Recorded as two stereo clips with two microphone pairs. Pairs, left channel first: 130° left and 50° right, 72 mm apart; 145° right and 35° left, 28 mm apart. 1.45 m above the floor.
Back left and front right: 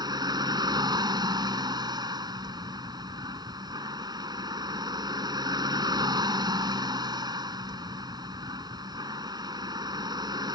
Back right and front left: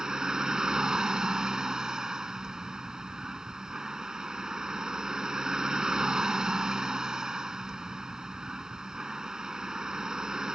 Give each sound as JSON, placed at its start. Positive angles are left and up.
{"t": 0.0, "sound": "a vehicle", "azimuth_deg": -35}